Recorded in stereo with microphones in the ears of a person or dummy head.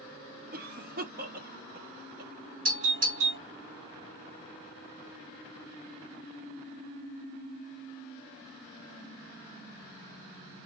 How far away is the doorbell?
About 1.8 m.